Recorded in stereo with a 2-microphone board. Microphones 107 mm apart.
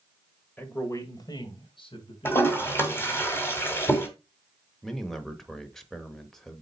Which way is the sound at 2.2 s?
20° left (ahead or behind).